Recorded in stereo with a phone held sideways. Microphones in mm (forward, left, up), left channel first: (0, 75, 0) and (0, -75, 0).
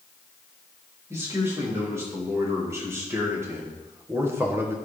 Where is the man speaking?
20° right (ahead or behind), 3.5 m; by 4.8 s 15° right (ahead or behind), 1.3 m.